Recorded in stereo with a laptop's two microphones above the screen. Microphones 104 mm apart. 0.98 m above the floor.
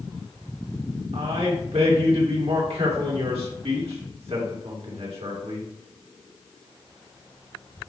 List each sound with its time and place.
1.1 s a man speaking: 80° right, 2.5 m